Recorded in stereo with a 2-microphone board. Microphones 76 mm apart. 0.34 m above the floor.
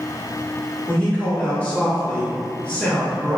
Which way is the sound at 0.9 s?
15° left (ahead or behind).